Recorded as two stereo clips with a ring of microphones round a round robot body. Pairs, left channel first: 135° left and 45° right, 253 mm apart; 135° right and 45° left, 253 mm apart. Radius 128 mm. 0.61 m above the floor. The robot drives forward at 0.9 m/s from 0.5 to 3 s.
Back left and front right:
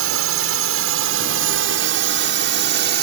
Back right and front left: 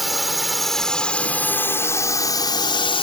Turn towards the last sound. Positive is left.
turn(degrees=-75)